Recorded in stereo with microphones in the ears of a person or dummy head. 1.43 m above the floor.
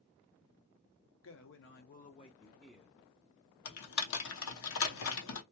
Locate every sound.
1.2 s a man speaking: 60° left (ahead or behind), 0.7 m; by 3.0 s 10° right (ahead or behind), 0.6 m
3.6 s typing on a keyboard: 80° left, 0.8 m